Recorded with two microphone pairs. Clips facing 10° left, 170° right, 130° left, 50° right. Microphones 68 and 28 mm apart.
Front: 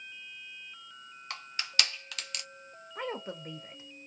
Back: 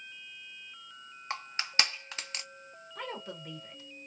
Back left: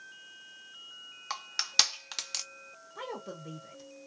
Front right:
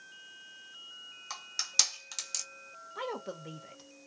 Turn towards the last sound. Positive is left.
turn(degrees=-20)